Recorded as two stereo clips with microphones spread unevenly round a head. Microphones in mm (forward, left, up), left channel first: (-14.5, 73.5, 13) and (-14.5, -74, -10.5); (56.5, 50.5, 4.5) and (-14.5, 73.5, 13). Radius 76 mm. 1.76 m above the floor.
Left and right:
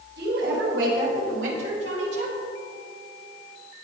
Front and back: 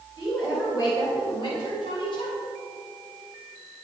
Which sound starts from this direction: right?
A woman speaking, at 0.2 s.